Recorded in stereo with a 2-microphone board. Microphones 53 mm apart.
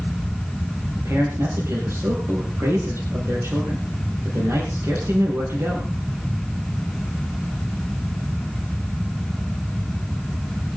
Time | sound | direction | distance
1.0 | a man speaking | 55° right (ahead or behind) | 5.5 m